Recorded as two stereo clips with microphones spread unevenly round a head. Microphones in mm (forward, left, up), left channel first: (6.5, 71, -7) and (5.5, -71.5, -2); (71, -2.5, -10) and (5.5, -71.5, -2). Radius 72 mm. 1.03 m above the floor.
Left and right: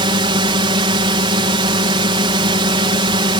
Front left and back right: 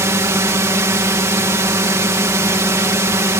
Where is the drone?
105° right.